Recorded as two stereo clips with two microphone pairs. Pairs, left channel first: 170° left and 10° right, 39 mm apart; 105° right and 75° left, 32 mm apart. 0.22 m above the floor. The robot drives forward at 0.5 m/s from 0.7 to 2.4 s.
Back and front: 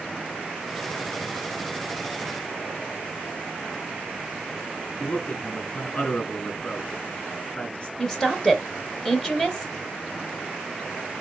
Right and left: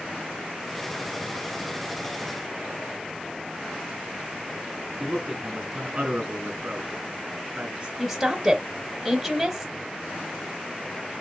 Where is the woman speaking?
155° left, 0.9 m.